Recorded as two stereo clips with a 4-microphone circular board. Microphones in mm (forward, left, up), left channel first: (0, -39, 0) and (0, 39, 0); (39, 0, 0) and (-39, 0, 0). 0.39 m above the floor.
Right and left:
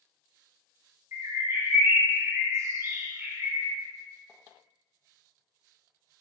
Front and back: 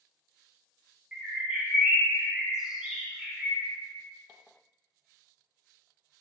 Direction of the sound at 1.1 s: 105° left.